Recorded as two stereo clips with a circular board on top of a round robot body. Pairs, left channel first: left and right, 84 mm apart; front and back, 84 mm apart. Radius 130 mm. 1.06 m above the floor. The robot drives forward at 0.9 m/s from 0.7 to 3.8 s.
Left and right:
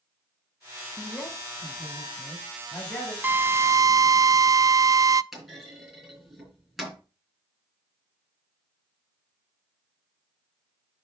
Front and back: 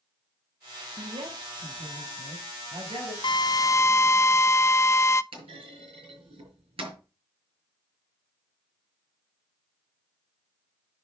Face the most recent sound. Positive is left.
turn(degrees=180)